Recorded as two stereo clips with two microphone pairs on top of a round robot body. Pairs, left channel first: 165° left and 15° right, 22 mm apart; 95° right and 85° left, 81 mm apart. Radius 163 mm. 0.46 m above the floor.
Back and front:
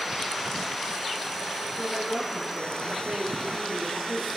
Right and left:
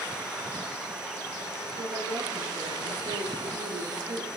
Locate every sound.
1.8 s a woman speaking: 45° left, 10 m